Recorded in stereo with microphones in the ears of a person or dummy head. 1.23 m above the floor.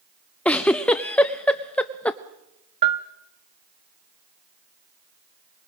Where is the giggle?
5° left (ahead or behind), 0.5 m.